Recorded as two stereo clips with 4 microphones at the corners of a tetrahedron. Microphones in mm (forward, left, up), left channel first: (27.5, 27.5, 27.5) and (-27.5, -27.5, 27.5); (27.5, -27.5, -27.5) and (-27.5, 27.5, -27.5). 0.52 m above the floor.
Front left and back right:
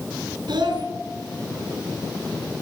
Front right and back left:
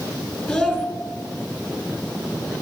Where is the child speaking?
130° right, 4 m.